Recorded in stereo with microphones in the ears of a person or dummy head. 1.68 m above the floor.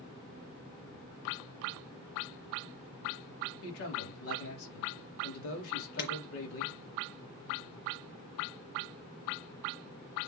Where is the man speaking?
75° left (ahead or behind), 4.5 m.